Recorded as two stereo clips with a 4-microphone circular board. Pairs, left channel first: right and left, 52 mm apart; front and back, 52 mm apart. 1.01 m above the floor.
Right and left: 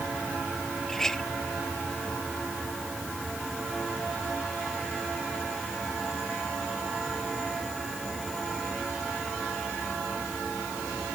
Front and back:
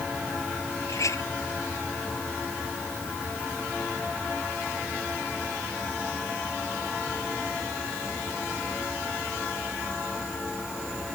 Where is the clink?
10° right.